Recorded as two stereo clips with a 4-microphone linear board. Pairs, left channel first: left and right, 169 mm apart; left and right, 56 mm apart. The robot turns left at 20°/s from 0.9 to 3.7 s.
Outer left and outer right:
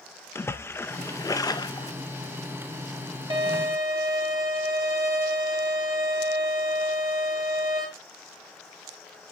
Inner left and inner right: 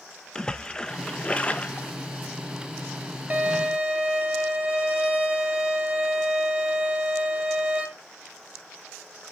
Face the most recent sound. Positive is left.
turn(degrees=-20)  # may be behind; listen again after turning